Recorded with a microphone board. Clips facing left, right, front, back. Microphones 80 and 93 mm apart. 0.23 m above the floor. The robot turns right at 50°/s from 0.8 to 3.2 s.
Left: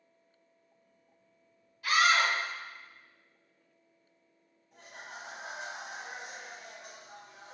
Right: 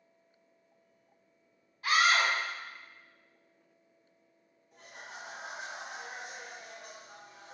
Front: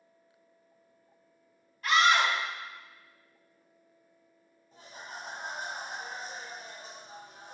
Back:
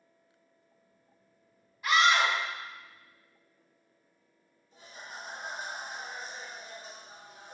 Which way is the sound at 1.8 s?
100° right.